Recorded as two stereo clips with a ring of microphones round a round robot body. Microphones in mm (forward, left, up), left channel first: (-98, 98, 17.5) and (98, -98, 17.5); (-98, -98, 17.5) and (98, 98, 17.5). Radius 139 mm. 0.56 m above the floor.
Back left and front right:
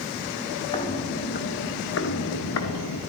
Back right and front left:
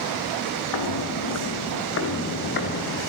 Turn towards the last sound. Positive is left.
turn(degrees=165)